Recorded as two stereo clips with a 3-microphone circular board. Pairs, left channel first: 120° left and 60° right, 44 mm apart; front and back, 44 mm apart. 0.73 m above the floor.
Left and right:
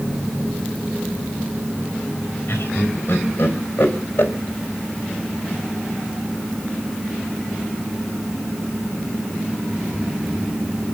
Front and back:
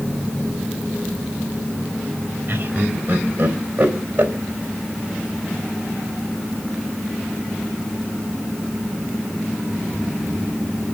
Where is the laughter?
155° left, 3 m.